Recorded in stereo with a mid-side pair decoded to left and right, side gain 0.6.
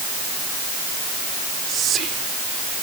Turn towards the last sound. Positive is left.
turn(degrees=-50)